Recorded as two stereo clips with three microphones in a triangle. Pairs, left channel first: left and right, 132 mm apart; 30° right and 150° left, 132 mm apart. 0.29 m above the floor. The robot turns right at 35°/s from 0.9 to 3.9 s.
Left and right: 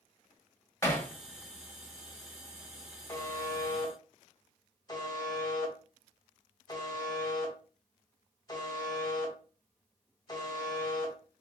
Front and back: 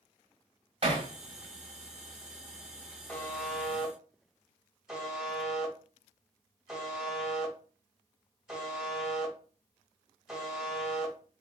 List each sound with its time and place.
0.8 s hammering: 150° left, 1.5 m; by 1.1 s 155° left, 1.5 m
3.1 s a buzzer: 40° left, 1.4 m; by 11.2 s 65° left, 1.4 m